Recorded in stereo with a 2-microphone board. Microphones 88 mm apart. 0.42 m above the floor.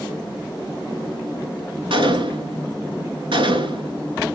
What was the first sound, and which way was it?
A gunshot, 70° right (ahead or behind).